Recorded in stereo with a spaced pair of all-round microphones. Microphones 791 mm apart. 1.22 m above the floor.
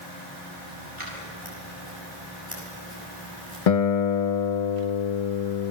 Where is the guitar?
50° left (ahead or behind), 0.7 m.